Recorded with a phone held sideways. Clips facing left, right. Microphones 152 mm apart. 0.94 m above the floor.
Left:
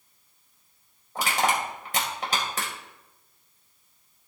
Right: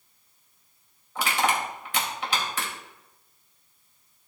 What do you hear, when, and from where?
1.1 s crushing: 40° left (ahead or behind), 2.5 m